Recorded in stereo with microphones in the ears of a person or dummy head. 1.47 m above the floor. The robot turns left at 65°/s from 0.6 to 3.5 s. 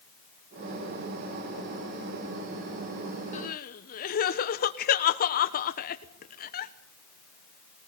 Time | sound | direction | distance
3.3 | crying | 40° left (ahead or behind) | 1.1 m